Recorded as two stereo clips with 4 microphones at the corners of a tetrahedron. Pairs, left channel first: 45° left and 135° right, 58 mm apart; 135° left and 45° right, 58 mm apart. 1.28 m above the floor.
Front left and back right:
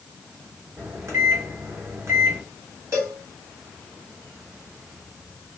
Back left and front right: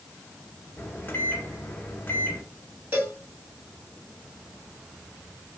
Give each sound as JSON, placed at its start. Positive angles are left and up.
{"t": 0.8, "sound": "a microwave", "azimuth_deg": -170, "distance_m": 1.0}
{"t": 2.9, "sound": "a cowbell", "azimuth_deg": -95, "distance_m": 2.0}